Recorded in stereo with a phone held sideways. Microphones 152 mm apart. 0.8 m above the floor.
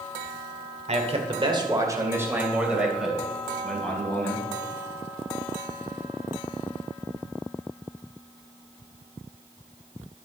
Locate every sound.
0.9 s a man speaking: 50° right (ahead or behind), 2.5 m; by 4.5 s 10° left (ahead or behind), 5 m